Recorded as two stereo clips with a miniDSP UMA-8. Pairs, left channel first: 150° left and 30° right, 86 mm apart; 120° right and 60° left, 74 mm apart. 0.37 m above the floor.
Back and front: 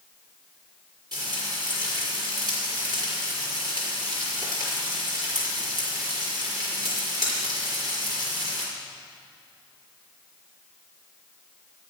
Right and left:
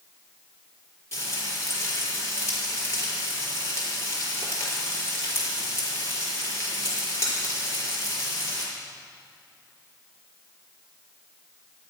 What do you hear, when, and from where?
1.1 s frying: 70° right, 5 m